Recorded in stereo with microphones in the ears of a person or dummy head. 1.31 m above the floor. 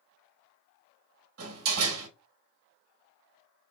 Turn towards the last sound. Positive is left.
turn(degrees=-75)  # may be behind; listen again after turning